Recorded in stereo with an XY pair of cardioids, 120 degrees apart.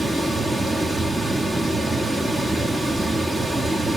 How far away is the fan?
About 0.9 m.